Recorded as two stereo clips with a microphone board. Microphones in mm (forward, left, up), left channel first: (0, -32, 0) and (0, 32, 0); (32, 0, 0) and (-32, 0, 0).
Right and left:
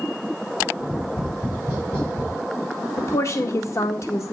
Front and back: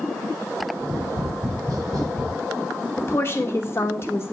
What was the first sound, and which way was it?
Tapping, 155° right.